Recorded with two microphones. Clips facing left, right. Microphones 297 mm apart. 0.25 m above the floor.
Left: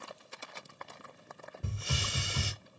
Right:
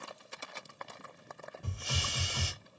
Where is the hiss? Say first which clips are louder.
Left 3 dB; 25° left (ahead or behind), 1.1 m.